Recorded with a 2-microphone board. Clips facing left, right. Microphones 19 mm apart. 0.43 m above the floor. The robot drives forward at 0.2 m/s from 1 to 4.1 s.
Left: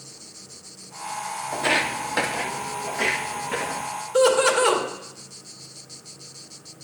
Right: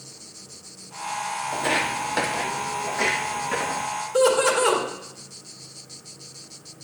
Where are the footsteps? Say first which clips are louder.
Left 2 dB; 30° left (ahead or behind), 0.9 m; by 3.9 s 30° right (ahead or behind), 1.8 m.